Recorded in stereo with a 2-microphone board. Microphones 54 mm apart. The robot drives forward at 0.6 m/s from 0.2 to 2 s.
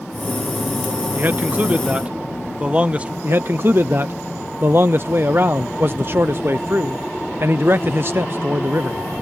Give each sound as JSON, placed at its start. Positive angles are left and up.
{"t": 1.1, "sound": "a man speaking", "side_deg": -40}
{"t": 3.2, "sound": "a man speaking", "side_deg": -45}